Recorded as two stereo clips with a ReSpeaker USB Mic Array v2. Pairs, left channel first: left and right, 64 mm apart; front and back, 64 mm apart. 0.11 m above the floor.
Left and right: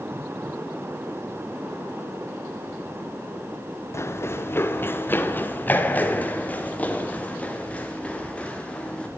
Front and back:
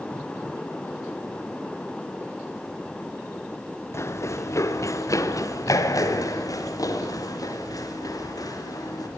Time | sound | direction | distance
3.9 | running footsteps | 45° left | 2 m